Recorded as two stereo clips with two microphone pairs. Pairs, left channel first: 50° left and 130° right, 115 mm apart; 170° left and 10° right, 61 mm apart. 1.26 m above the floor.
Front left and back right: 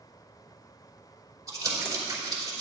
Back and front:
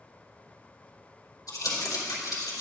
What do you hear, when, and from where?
1.5 s crumpling: 175° left, 3 m